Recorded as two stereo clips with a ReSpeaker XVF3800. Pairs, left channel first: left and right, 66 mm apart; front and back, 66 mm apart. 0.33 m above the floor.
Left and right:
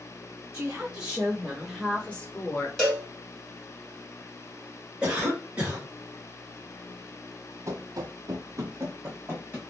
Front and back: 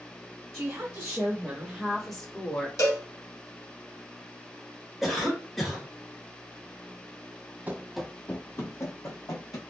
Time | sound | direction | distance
0.5 | a woman speaking | 145° right | 1.2 m
2.8 | a cowbell | 10° left | 1.8 m
5.0 | a cough | 95° right | 1.1 m
7.7 | running footsteps | 120° right | 0.6 m